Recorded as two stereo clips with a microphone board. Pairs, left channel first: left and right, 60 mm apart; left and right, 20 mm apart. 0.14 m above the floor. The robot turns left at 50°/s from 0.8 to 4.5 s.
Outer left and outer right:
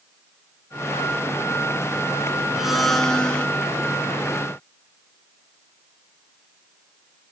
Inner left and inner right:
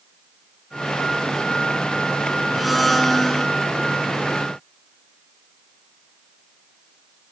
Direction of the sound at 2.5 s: 170° right.